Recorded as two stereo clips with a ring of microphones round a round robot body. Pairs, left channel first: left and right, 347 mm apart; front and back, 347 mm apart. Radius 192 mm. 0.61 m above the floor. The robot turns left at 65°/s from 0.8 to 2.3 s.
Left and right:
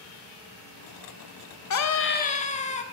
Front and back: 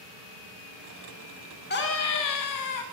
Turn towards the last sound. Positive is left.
turn(degrees=20)